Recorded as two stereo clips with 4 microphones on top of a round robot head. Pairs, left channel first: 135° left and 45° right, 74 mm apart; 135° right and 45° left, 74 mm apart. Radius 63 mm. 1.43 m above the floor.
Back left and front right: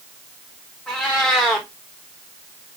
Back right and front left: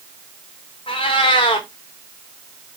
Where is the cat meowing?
140° right, 0.8 m.